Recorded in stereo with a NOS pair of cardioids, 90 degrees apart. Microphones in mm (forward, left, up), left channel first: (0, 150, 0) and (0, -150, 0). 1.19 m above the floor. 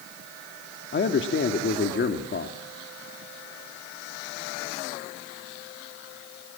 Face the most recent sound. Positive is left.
turn(degrees=40)